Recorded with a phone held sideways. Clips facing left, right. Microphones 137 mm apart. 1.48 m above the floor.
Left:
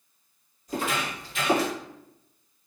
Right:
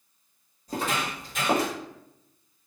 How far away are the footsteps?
About 1.8 m.